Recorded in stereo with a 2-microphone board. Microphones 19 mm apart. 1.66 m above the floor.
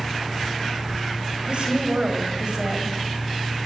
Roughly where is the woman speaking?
Right.